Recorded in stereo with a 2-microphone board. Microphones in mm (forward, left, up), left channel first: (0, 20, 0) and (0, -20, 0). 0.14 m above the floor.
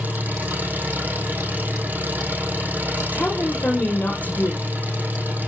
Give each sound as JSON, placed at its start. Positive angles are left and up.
{"t": 0.0, "sound": "an engine running", "side_deg": -40, "distance_m": 3.5}
{"t": 3.1, "sound": "a woman speaking", "side_deg": 40, "distance_m": 3.5}